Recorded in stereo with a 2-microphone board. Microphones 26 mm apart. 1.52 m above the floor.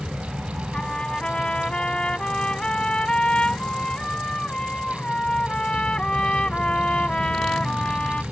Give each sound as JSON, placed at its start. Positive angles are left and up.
{"t": 0.7, "sound": "a trumpet", "side_deg": 35}